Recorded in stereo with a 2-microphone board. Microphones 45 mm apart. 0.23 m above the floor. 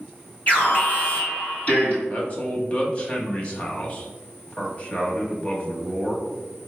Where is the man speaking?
25° left (ahead or behind), 1.0 m.